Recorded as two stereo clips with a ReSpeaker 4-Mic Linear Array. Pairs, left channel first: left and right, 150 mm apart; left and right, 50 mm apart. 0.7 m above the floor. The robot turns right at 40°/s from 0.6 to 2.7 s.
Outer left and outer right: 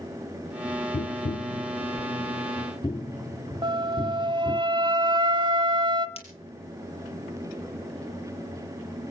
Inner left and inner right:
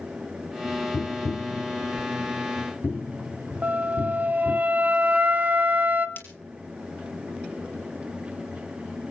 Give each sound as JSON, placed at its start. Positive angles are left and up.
{"t": 0.9, "sound": "tapping", "side_deg": 70, "distance_m": 0.6}
{"t": 3.6, "sound": "a flute", "side_deg": -35, "distance_m": 1.1}
{"t": 6.2, "sound": "breaking glass", "side_deg": 45, "distance_m": 4.5}